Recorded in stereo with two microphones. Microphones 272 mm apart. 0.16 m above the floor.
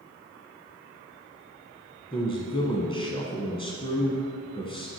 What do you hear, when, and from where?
2.1 s a man speaking: 20° left (ahead or behind), 1.3 m